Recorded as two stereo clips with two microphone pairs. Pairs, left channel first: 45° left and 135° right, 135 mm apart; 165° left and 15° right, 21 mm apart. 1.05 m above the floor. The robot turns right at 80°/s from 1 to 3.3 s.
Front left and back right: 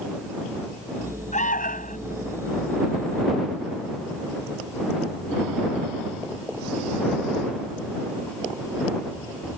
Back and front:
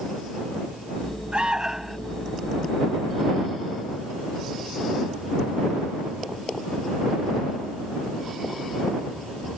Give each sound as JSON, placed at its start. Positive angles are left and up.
{"t": 1.3, "sound": "an alarm", "azimuth_deg": 20}